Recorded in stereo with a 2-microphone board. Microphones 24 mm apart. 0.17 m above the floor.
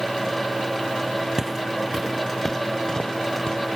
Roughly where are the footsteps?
Right.